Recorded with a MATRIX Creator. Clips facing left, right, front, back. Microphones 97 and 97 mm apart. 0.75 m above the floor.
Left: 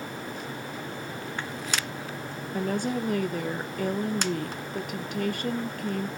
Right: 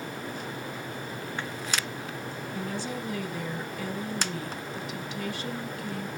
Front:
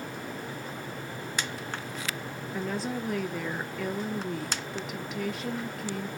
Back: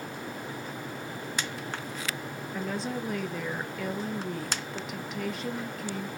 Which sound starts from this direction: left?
A woman speaking, at 2.5 s.